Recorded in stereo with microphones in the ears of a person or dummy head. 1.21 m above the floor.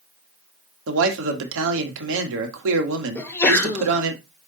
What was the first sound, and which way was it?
A man speaking, 70° right (ahead or behind).